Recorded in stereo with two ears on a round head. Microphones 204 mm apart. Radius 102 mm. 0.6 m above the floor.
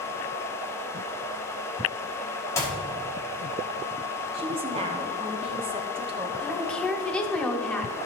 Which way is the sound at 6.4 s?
5° left (ahead or behind).